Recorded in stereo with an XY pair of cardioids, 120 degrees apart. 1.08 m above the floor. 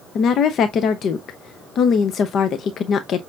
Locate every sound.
0.1 s a woman speaking: 55° left, 0.7 m